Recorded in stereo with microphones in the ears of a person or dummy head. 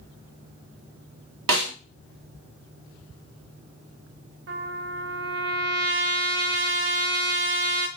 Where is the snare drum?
70° right (ahead or behind), 2.5 m.